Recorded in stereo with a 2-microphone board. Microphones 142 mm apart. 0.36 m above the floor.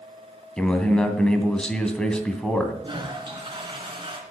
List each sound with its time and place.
0.6 s a man speaking: 5° left (ahead or behind), 2 m
2.8 s a toilet flushing: 35° right (ahead or behind), 3 m